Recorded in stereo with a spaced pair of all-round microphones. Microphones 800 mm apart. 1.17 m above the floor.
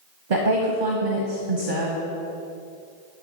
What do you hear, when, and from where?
0.3 s a woman speaking: 80° right, 1.2 m